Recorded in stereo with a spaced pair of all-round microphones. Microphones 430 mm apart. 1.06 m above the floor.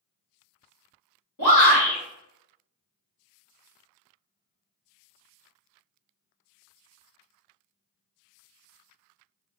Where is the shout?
45° left (ahead or behind), 1.6 m.